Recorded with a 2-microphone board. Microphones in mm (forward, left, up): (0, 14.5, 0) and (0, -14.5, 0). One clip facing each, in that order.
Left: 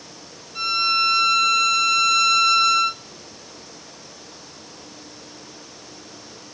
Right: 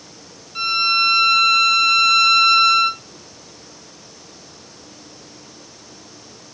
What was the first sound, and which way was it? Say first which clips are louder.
A violin: right 3 dB; 25° right (ahead or behind).